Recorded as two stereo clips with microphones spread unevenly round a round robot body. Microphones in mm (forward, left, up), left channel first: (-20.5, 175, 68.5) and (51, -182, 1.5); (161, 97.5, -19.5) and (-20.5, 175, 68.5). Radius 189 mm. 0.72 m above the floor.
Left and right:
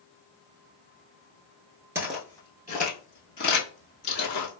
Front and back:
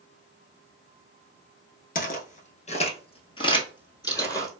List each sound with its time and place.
1.9 s footsteps: 20° left, 0.7 m; by 4.5 s 60° left, 1.7 m